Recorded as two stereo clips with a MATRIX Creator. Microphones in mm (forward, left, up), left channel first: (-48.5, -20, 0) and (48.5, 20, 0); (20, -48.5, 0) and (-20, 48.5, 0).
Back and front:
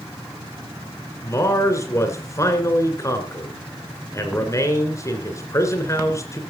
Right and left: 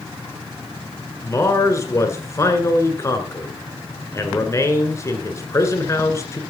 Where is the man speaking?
115° right, 2 m.